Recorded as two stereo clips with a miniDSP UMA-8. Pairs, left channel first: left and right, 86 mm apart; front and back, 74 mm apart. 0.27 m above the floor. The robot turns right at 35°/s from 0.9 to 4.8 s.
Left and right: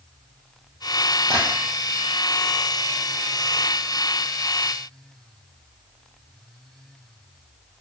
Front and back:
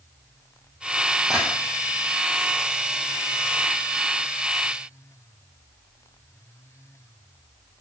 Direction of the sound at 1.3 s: 100° right.